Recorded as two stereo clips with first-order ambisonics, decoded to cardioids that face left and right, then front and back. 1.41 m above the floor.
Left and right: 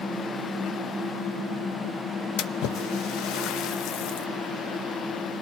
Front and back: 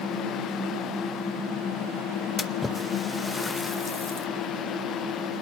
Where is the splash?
75° left, 0.8 m.